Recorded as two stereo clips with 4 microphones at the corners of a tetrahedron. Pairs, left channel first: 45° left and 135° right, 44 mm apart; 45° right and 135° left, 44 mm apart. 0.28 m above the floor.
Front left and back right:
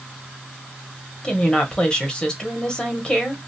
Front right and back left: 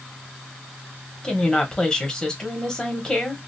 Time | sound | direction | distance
1.2 | a woman speaking | 5° left | 1.0 m